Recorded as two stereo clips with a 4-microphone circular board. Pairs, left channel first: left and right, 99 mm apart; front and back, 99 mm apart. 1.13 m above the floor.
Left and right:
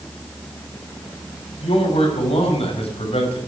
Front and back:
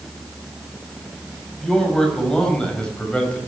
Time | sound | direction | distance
1.6 | a man speaking | 85° left | 6 m